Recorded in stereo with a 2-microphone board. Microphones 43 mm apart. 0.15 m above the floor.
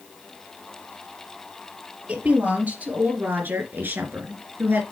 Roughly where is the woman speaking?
Right.